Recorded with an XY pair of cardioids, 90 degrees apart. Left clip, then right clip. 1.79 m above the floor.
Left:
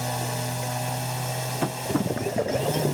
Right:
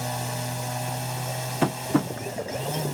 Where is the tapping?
30° right.